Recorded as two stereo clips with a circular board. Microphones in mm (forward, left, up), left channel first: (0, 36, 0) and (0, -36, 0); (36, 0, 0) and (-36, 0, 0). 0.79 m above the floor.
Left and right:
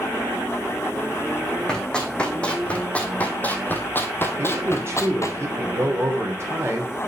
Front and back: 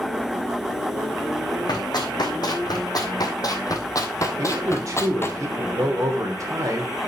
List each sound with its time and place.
1.7 s running footsteps: 10° left, 2.5 m; by 5.4 s 55° left, 1.5 m
4.4 s a man speaking: 140° right, 3 m